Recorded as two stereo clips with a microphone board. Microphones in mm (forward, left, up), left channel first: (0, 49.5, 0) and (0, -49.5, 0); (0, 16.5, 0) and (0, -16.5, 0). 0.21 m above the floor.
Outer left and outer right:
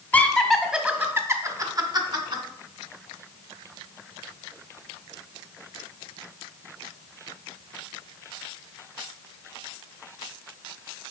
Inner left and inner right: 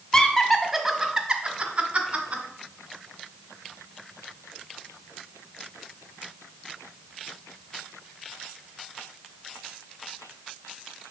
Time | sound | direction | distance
0.1 | laughter | 15° left (ahead or behind) | 1.0 m